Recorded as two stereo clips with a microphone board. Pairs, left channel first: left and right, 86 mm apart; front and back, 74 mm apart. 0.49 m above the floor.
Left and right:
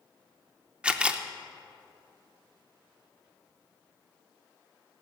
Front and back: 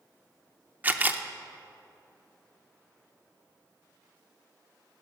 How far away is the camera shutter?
About 0.6 m.